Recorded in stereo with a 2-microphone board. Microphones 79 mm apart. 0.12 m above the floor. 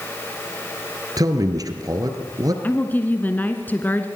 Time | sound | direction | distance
1.2 | a man speaking | 50° right (ahead or behind) | 2 m
2.6 | a woman speaking | 25° left (ahead or behind) | 1.2 m